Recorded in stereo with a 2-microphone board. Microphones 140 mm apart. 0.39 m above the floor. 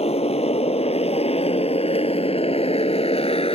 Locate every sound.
0.0 s a motorcycle: 45° left (ahead or behind)